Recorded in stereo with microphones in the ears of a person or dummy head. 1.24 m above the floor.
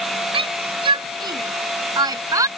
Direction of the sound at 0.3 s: 25° right (ahead or behind).